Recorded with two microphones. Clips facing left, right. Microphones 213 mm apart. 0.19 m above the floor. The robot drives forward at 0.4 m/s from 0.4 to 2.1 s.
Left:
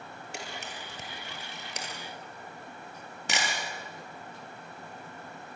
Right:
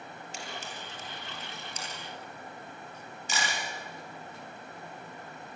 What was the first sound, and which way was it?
A camera shutter, 60° left (ahead or behind).